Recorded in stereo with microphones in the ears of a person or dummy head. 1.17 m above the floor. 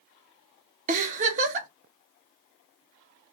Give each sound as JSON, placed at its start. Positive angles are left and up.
{"t": 0.9, "sound": "a giggle", "side_deg": -35, "distance_m": 0.6}